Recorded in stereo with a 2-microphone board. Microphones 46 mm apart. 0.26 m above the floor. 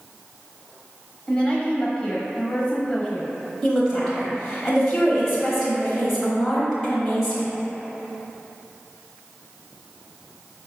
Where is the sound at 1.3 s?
20° left (ahead or behind), 1.0 m.